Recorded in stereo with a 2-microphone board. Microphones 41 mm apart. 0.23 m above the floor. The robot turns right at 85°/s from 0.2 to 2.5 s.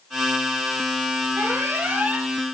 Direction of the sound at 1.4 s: 105° right.